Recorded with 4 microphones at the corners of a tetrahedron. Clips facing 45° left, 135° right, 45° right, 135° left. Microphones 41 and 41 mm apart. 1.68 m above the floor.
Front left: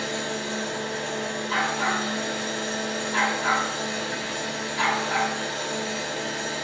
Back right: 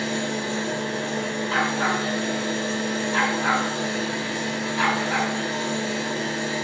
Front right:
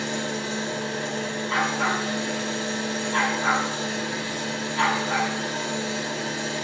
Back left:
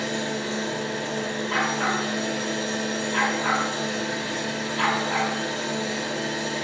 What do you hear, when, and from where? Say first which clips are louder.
0.0 s an engine running: back right 3 dB, back left 1 dB; 160° right, 1.8 m
1.5 s a dog barking: back right 2 dB, front right 1 dB; 75° right, 1.5 m